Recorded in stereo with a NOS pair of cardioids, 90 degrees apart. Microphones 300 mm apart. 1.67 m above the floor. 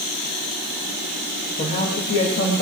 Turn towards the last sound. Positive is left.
turn(degrees=45)